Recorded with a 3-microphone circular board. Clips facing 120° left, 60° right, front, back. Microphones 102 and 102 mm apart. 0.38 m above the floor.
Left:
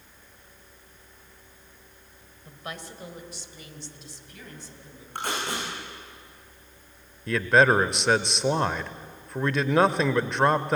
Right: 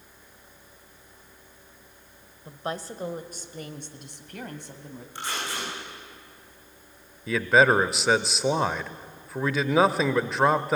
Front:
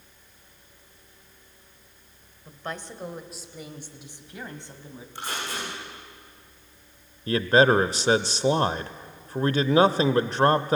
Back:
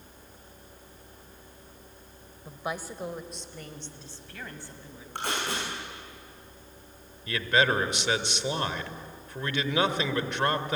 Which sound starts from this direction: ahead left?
A man speaking, at 7.3 s.